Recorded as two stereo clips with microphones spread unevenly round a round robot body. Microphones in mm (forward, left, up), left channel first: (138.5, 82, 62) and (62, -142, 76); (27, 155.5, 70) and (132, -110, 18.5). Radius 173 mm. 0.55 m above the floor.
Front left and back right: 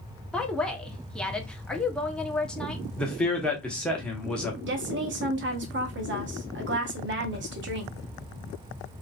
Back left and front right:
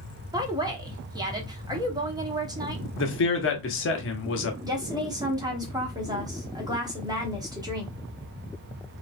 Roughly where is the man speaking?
Behind left.